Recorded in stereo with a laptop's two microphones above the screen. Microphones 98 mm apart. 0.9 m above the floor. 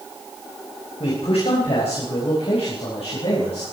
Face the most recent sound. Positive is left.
turn(degrees=85)